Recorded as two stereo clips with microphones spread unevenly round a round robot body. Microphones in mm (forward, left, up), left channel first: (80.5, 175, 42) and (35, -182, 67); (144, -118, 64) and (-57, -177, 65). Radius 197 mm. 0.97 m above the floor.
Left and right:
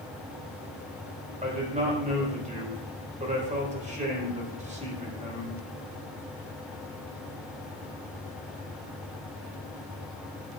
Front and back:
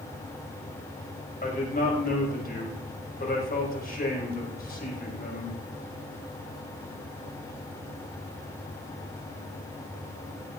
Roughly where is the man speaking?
Ahead right.